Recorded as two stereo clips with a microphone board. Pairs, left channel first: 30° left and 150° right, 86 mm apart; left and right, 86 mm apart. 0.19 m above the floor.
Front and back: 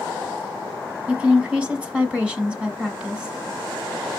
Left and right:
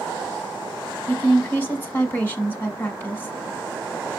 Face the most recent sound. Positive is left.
turn(degrees=140)